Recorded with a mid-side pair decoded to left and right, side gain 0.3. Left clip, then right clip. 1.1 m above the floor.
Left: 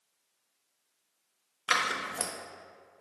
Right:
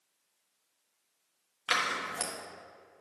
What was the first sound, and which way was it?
Scissors, 45° left.